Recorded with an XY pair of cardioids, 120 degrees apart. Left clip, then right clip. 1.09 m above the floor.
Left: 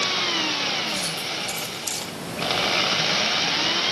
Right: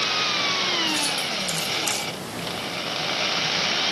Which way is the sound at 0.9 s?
25° right.